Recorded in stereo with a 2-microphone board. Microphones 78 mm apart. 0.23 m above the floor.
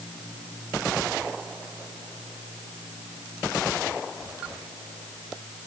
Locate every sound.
Only background noise.